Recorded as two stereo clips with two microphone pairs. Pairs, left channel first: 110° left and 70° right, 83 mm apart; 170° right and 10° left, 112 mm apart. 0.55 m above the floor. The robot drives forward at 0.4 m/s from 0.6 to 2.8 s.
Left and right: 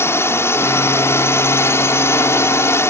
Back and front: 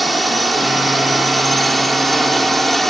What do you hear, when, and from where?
0.0 s a drone: 100° left